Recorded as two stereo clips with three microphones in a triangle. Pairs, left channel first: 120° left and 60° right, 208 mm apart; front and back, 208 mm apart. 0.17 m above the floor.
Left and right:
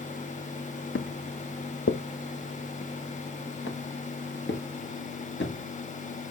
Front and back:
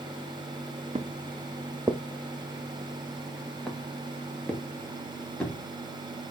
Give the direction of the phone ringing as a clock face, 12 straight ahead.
No phone ringing in this recording.